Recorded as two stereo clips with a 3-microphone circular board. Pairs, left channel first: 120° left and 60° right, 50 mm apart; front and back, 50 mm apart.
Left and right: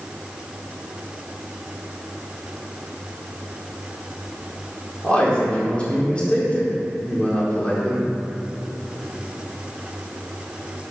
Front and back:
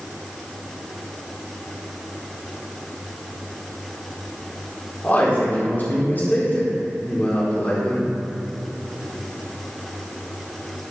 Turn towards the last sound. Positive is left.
turn(degrees=50)